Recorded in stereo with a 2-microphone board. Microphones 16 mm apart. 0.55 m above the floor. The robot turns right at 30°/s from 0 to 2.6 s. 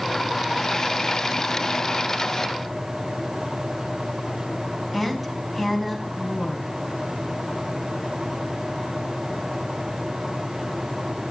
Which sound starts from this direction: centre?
A woman speaking, at 4.9 s.